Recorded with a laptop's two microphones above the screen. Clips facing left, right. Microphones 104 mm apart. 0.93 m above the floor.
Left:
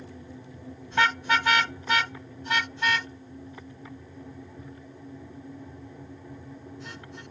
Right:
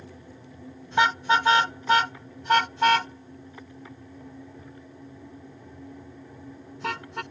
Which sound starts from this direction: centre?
A car horn, at 0.9 s.